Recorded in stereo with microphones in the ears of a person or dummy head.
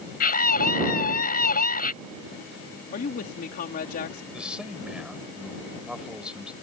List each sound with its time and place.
0.2 s a scream: 45° left (ahead or behind)
2.9 s a woman speaking: 50° left (ahead or behind)
4.3 s a man speaking: 5° right (ahead or behind)